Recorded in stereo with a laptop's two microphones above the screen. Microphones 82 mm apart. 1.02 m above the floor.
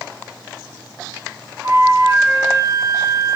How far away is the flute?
About 3 m.